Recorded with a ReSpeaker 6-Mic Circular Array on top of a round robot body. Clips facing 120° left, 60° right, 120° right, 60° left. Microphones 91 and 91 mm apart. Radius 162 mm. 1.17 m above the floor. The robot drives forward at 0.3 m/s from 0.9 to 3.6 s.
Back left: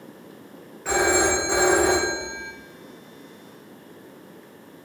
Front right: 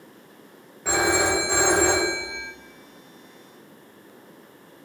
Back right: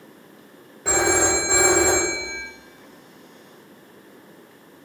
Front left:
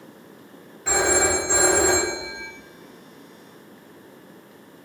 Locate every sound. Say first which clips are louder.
0.8 s a phone ringing: back left 1 dB, back right 1 dB; 135° right, 0.5 m; by 2.5 s 160° right, 0.9 m